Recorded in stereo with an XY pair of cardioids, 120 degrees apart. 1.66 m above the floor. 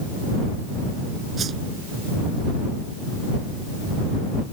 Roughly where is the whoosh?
Ahead right.